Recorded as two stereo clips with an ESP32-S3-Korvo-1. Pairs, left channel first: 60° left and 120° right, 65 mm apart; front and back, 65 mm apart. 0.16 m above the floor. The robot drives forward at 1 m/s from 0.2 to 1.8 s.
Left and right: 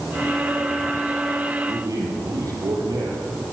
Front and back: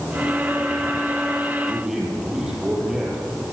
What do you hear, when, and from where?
1.7 s a man speaking: 100° right, 6 m